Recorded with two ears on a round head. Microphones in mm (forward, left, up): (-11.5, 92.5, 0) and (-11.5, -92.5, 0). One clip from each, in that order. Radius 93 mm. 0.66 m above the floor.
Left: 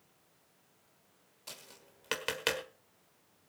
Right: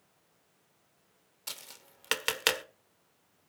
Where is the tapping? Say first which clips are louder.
Right 6 dB; 50° right (ahead or behind), 1.3 m.